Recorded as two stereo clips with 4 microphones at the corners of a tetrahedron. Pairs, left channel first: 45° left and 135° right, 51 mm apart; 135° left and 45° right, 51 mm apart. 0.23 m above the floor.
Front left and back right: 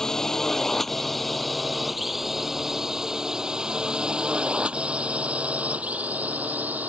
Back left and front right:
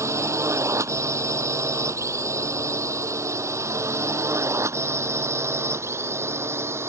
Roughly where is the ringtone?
I don't hear a ringtone.